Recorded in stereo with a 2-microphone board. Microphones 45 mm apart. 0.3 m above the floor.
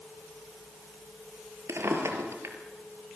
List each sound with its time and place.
1.7 s a drawer: 80° right, 3.5 m